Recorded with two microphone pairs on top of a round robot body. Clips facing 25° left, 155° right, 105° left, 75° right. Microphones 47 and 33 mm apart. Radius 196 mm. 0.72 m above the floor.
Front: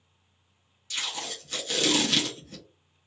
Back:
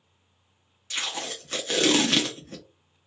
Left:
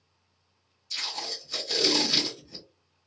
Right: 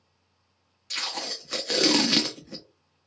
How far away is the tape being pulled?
About 0.7 m.